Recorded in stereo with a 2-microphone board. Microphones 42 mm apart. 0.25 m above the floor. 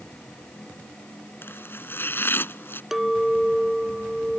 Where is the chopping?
65° left (ahead or behind).